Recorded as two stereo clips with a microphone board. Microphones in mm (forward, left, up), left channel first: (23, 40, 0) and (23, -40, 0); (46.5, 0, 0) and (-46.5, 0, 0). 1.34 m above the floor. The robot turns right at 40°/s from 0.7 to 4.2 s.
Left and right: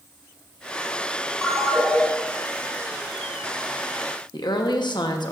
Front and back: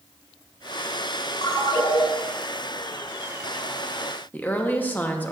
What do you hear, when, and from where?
1.4 s a ringtone: 5° right, 2 m; by 2.0 s 20° left, 2 m
4.3 s a woman speaking: 70° left, 1.1 m